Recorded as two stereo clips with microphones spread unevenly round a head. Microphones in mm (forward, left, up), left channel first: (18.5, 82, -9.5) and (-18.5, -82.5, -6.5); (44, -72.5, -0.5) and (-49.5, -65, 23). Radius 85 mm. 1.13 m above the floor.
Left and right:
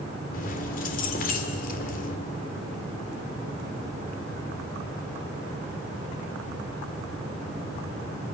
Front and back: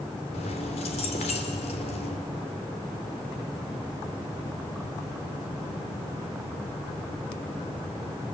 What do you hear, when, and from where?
0.3 s keys jangling: 35° left, 2.5 m